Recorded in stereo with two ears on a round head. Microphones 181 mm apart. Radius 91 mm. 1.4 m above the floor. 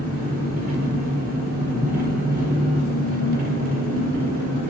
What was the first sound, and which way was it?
An engine running, 50° right (ahead or behind).